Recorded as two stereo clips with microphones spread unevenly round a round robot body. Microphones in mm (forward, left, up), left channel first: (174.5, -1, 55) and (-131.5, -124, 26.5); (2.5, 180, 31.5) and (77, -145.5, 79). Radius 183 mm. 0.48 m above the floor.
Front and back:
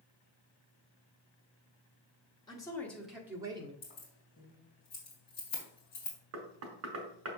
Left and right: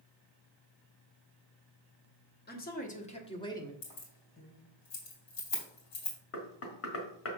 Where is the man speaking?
100° left, 1.3 m; by 3.7 s 160° left, 1.2 m.